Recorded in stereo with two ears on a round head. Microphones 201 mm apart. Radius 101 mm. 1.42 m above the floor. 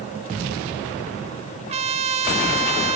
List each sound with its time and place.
1.7 s a trumpet: 30° right (ahead or behind), 1.2 m